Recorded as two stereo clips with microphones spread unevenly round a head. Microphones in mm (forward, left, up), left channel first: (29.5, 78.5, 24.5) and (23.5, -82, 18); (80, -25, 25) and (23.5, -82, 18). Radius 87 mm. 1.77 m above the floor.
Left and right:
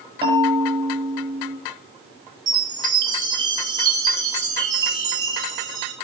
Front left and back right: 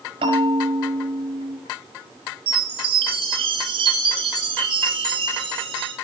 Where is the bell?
160° right, 5 m.